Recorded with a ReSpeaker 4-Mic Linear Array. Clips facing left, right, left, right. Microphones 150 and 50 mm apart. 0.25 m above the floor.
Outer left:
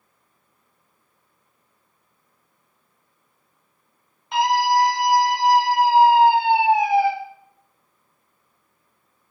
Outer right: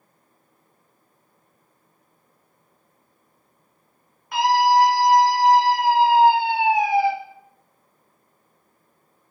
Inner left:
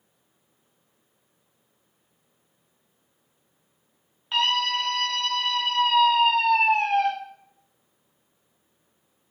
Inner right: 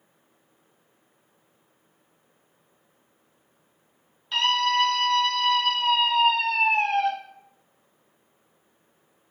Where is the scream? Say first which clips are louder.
Outer right 2 dB, inner right 1 dB; 25° left (ahead or behind), 1.6 m; by 7.1 s 10° left (ahead or behind), 2.5 m.